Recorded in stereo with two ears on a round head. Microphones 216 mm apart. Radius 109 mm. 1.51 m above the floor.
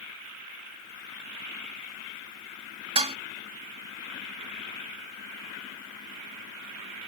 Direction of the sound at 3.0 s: 25° right (ahead or behind).